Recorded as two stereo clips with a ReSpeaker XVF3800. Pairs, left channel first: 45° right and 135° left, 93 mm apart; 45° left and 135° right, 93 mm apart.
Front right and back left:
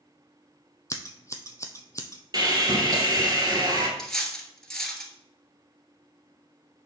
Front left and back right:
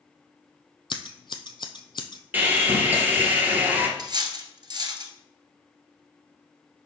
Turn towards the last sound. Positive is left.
turn(degrees=-130)